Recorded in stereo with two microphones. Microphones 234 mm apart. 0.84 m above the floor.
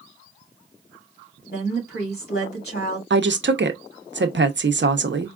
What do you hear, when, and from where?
1.5 s a woman speaking: 45° left (ahead or behind), 3 m
3.1 s a woman speaking: 50° right (ahead or behind), 0.7 m